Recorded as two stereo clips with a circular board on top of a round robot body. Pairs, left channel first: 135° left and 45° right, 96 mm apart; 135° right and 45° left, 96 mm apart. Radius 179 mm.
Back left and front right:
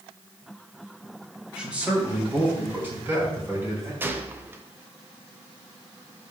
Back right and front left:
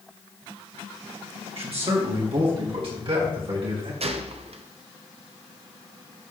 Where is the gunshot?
25° left, 0.9 m.